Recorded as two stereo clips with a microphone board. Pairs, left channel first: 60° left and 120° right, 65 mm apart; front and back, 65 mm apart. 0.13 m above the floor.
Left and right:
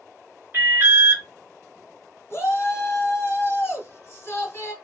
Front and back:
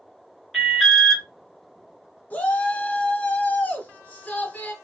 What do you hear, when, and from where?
0.5 s an alarm: 90° right, 2 m
2.3 s a shout: 45° left, 2 m